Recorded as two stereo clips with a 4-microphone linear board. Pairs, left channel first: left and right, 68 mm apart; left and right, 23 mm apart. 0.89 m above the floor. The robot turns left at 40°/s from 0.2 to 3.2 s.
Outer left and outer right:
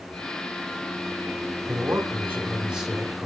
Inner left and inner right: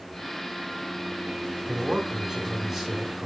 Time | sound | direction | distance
1.6 | a man speaking | 125° right | 2.5 m